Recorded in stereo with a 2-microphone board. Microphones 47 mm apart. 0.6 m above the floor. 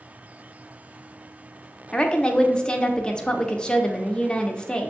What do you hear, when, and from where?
1.9 s a woman speaking: 20° left (ahead or behind), 0.6 m